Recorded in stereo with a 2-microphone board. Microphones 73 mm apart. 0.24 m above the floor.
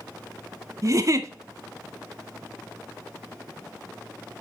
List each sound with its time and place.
0.8 s a giggle: 45° right (ahead or behind), 0.5 m